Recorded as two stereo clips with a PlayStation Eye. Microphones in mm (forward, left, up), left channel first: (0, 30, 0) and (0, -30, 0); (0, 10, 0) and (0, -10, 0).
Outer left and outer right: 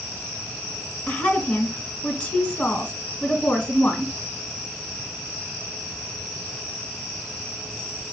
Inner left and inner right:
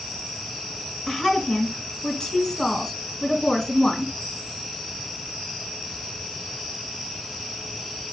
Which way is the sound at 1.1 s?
35° left (ahead or behind).